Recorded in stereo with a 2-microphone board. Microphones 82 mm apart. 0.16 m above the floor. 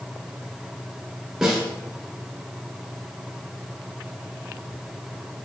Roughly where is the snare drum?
Centre.